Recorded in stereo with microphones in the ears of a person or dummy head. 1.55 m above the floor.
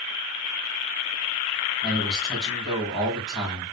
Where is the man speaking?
5° right (ahead or behind), 4.5 m.